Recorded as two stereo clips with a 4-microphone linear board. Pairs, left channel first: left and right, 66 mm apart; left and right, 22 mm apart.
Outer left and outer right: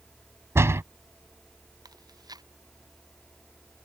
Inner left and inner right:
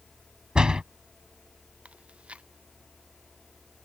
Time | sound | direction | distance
0.6 | a door slam | 45° right (ahead or behind) | ?
1.9 | chewing | 80° right | ?